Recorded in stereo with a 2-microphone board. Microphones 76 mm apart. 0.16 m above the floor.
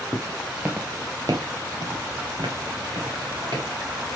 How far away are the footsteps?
About 0.6 m.